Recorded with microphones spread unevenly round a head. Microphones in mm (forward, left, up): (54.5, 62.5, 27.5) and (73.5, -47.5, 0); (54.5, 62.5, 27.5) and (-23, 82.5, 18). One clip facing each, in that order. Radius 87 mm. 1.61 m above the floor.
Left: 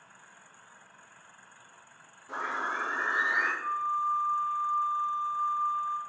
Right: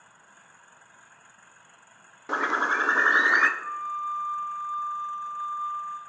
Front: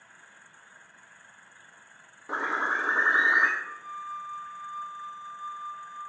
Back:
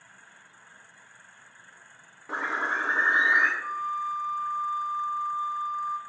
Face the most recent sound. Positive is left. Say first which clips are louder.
# left 2 dB, back 8 dB
turn(degrees=180)